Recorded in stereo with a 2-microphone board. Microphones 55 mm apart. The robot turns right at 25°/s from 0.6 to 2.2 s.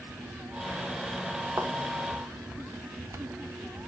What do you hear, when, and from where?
1.6 s a thud: 50° right (ahead or behind), 1.2 m; by 1.7 s 55° right (ahead or behind), 1.2 m